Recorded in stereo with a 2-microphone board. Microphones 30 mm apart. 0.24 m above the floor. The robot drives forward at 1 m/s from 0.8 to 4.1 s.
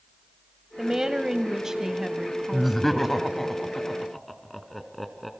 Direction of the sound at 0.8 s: 20° right (ahead or behind).